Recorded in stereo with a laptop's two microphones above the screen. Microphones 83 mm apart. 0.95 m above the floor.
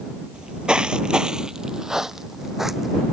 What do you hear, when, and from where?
0.3 s footsteps: 10° right (ahead or behind); by 3.0 s 5° right (ahead or behind)